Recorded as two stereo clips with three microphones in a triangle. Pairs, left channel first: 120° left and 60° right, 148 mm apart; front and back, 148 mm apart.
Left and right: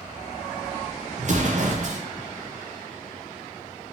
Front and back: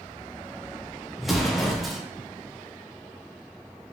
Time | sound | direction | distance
1.2 | an explosion | 90° right | 0.5 m